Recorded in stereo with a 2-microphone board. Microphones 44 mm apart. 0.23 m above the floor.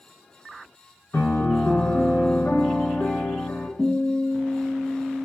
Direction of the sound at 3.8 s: 45° left (ahead or behind).